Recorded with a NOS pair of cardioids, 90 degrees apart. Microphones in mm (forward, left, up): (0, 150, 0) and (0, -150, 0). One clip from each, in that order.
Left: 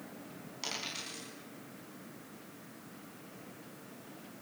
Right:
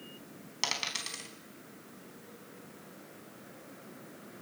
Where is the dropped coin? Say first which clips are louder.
Right 6 dB; 70° right, 4.5 m.